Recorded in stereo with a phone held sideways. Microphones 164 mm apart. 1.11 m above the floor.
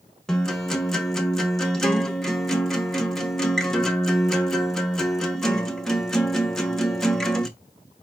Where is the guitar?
5° left (ahead or behind), 0.8 m.